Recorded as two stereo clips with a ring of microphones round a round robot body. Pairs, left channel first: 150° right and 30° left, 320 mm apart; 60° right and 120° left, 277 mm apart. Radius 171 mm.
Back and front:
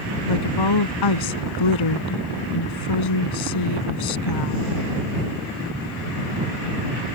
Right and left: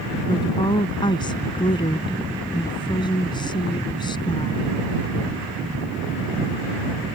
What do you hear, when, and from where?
0.3 s a woman speaking: 135° right